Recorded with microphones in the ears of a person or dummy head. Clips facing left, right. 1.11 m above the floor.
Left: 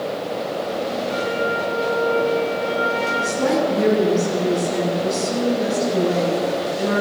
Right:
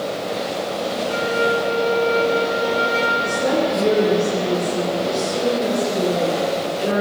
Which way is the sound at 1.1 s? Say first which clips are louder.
Right 5 dB; 55° right (ahead or behind).